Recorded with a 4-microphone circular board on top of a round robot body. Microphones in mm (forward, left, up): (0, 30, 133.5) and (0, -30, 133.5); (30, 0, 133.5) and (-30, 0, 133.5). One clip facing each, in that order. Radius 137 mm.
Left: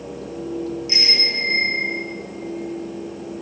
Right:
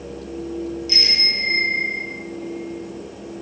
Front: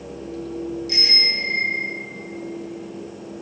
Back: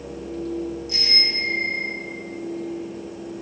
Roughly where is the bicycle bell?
Ahead left.